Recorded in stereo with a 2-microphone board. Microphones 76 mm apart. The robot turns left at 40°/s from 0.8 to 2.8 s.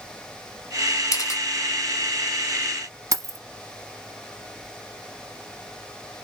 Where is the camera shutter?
45° left (ahead or behind), 1.4 m; by 1.4 s 40° left (ahead or behind), 1.4 m.